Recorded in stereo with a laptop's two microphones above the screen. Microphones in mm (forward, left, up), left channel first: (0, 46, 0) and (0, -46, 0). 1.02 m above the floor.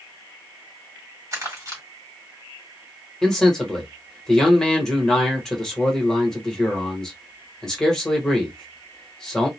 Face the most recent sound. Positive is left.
turn(degrees=5)  # may be behind; listen again after turning